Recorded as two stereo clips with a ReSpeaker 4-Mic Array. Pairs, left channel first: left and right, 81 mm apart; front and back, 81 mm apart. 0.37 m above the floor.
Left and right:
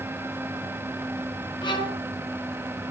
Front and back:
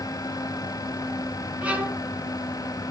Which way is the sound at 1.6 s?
110° left.